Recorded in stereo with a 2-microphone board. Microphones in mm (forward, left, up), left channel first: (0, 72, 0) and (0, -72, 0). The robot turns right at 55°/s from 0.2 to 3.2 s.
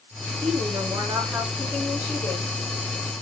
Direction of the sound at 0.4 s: 60° right.